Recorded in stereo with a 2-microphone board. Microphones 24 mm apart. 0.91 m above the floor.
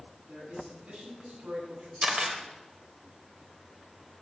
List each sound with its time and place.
0.3 s a man speaking: 75° right (ahead or behind), 9.5 m
2.0 s a camera shutter: 40° right (ahead or behind), 2.5 m